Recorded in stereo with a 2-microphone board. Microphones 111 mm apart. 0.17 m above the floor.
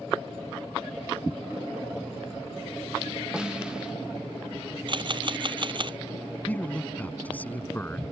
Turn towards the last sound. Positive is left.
turn(degrees=15)  # may be behind; listen again after turning